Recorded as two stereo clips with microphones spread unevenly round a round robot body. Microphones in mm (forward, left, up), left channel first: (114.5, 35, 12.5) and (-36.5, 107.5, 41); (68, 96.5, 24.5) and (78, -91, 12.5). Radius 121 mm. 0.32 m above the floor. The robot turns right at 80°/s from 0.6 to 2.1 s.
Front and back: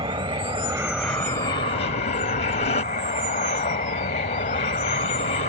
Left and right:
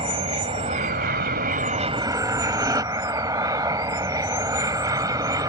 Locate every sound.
0.0 s an aircraft: 145° right; by 5.5 s 25° right